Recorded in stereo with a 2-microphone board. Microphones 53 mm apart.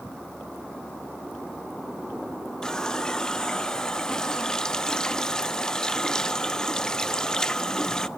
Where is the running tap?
15° left (ahead or behind), 0.6 m.